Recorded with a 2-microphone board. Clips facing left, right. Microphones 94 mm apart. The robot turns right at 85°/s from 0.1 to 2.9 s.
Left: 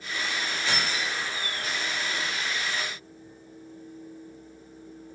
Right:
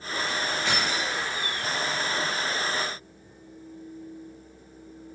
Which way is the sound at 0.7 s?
120° right.